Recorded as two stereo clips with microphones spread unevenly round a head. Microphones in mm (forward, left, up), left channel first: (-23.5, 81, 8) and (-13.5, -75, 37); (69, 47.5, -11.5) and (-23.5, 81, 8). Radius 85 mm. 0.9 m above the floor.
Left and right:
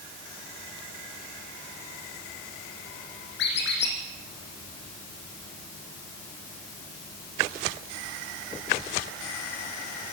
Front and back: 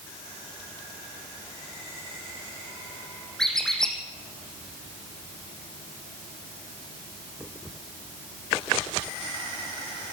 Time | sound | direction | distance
3.4 | a squeak | 65° left | 4.5 m